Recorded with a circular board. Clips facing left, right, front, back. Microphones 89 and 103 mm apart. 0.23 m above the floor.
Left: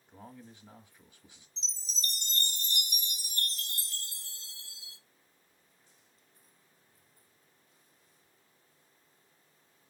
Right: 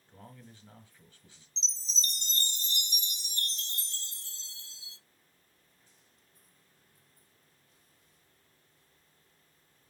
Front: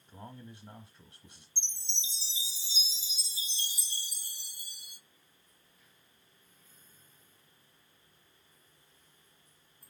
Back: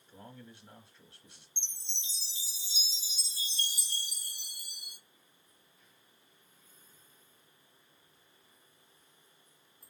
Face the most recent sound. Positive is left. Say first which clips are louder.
# right 1 dB, front 4 dB
turn(degrees=-150)